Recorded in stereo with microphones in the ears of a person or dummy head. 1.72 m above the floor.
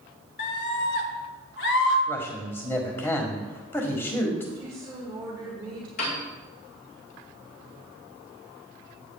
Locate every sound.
0.4 s a scream: 65° left (ahead or behind), 1.5 m; by 2.0 s 70° left (ahead or behind), 3 m
2.1 s a man speaking: 15° left (ahead or behind), 1.6 m
4.5 s a woman speaking: 25° right (ahead or behind), 1.4 m
6.0 s a piano: 45° left (ahead or behind), 3.5 m